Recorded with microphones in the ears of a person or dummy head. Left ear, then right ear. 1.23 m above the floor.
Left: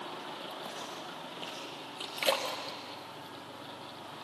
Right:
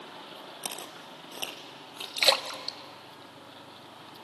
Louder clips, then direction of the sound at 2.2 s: Right 6 dB; 35° right (ahead or behind).